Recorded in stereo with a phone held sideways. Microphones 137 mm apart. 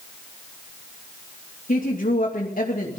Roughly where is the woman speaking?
Left.